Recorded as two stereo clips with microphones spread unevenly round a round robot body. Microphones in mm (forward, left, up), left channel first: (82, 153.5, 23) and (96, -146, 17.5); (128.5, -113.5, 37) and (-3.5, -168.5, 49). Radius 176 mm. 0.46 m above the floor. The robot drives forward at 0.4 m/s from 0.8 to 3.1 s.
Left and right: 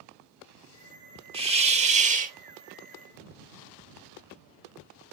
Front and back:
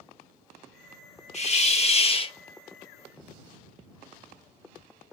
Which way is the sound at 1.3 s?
15° right.